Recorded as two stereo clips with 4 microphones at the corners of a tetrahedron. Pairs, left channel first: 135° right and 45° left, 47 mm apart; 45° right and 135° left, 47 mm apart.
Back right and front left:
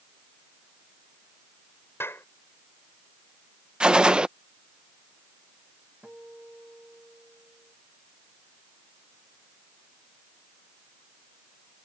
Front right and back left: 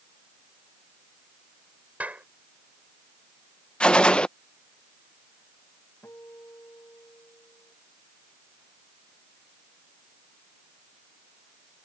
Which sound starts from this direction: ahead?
A gunshot, at 3.8 s.